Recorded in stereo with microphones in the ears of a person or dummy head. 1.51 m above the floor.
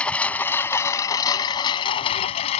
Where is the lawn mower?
10° left (ahead or behind); by 2.6 s 35° left (ahead or behind).